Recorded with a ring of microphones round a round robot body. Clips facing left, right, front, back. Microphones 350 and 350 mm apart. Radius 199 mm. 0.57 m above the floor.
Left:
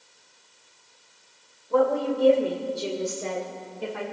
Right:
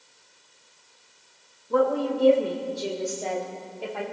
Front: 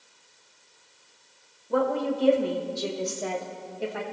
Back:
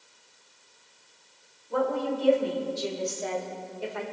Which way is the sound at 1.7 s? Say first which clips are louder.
Even, front 2 dB; 25° right.